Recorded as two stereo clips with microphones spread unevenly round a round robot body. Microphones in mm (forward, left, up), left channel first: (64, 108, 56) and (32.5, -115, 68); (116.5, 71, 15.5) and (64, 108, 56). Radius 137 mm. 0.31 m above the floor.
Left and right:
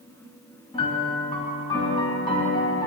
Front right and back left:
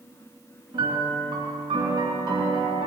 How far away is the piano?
About 3.5 m.